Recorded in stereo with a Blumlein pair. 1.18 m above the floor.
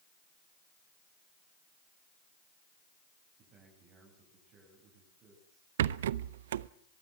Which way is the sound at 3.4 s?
30° right.